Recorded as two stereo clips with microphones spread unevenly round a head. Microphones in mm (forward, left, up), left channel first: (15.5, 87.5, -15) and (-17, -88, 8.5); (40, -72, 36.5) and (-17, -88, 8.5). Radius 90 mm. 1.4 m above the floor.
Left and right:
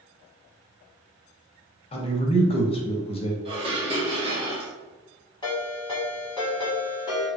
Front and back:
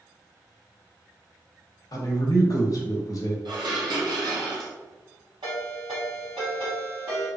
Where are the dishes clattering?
155° right, 0.8 m.